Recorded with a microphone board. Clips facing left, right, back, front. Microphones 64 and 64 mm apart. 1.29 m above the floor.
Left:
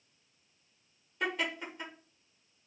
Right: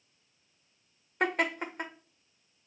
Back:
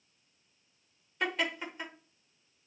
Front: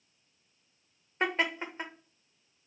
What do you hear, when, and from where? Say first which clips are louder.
1.2 s laughter: right 5 dB, front 3 dB; 60° right, 1.2 m